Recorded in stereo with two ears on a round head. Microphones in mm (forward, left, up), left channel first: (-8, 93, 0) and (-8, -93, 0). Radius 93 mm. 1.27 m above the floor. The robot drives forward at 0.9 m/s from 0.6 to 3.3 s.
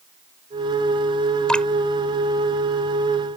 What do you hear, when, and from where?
1.5 s dripping: 5° left (ahead or behind)